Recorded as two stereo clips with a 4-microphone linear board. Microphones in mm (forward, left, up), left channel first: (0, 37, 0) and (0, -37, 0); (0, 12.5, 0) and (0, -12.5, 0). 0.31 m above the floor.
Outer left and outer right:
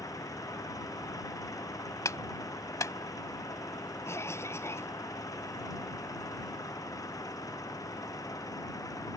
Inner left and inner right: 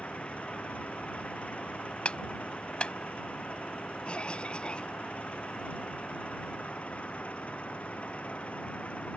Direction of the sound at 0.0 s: 55° left (ahead or behind).